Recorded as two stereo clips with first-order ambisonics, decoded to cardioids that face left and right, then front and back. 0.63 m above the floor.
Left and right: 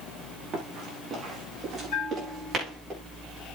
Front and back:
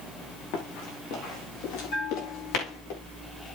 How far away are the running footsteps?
About 8 m.